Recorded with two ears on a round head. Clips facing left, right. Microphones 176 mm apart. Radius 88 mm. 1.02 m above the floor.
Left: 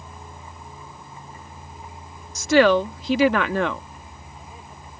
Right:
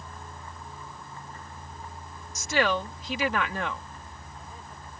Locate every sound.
0.0 s a vehicle: 10° left (ahead or behind)
2.4 s a woman speaking: 55° left (ahead or behind)